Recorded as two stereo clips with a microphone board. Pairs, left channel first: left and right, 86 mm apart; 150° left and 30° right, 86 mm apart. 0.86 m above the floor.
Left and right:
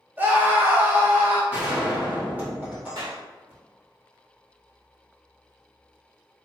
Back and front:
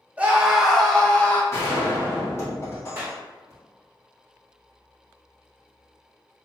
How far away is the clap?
About 1.6 m.